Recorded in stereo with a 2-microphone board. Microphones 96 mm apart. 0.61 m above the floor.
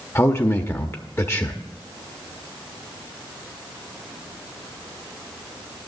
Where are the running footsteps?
I don't hear running footsteps.